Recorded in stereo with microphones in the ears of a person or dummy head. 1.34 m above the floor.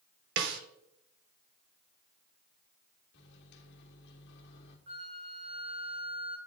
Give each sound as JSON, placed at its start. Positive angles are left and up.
{"t": 0.4, "sound": "a snare drum", "side_deg": -65, "distance_m": 0.7}
{"t": 3.1, "sound": "a microwave", "side_deg": 75, "distance_m": 1.3}
{"t": 4.9, "sound": "a flute", "side_deg": -35, "distance_m": 1.0}